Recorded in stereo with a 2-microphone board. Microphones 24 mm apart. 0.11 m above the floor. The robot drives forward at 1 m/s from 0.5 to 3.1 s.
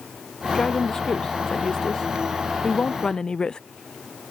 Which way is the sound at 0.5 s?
25° left (ahead or behind).